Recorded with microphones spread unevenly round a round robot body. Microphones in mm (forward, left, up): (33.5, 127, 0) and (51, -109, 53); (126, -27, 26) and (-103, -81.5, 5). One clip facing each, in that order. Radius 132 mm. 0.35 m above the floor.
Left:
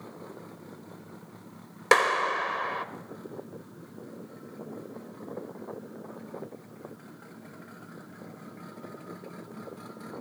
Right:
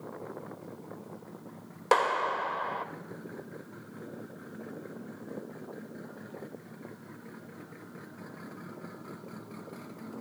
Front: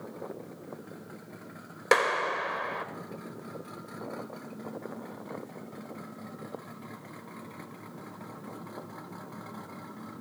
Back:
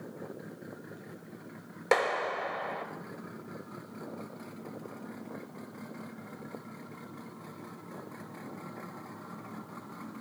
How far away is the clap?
About 1.1 m.